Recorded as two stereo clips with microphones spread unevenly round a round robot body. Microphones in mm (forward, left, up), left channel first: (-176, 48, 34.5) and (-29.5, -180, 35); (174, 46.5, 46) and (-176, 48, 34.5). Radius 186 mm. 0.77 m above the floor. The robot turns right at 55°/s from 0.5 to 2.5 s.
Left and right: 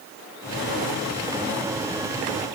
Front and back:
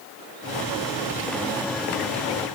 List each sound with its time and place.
Only background noise.